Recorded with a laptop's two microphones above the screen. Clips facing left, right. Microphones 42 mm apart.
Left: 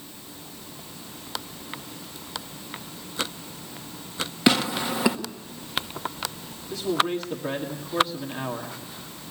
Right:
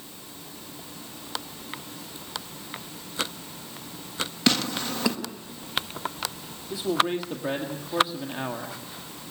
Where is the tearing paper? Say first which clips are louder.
Left 4 dB; 15° left (ahead or behind), 1.2 m.